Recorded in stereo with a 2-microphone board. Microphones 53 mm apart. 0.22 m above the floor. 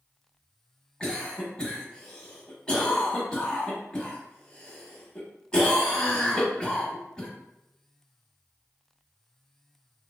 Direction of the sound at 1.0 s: 20° left (ahead or behind).